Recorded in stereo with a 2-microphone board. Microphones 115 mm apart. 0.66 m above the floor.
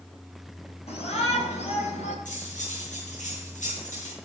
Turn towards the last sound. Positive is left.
turn(degrees=85)